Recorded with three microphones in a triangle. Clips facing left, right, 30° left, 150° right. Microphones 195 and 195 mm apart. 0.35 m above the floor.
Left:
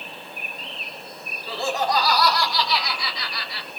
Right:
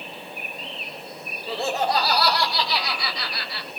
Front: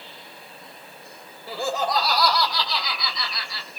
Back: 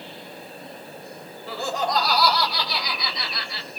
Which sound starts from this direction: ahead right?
Laughter, at 1.5 s.